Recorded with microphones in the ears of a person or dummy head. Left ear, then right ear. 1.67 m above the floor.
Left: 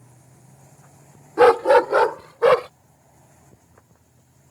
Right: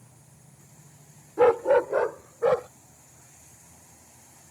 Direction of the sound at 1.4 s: 60° left (ahead or behind).